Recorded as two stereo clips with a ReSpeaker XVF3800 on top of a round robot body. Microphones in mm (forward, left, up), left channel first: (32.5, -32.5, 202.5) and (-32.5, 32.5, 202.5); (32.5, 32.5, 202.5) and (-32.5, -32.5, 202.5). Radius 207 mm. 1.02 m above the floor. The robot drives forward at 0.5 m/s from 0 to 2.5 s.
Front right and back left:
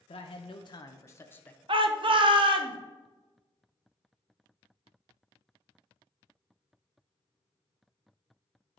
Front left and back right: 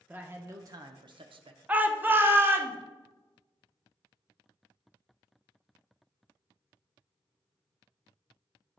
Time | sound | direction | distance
0.1 | a man speaking | 65° right | 0.8 m
1.7 | a shout | 155° left | 1.1 m